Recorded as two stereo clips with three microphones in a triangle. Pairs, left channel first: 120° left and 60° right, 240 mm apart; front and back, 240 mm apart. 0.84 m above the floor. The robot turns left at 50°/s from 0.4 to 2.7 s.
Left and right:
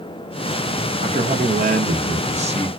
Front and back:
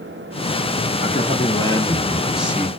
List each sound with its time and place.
1.0 s a man speaking: 25° right, 0.7 m; by 2.7 s 110° right, 0.7 m